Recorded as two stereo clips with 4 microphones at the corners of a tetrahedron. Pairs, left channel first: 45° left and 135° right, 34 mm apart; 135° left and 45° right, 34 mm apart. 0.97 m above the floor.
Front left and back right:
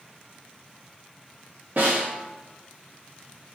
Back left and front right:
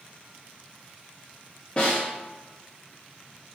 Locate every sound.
1.8 s a snare drum: 170° right, 1.4 m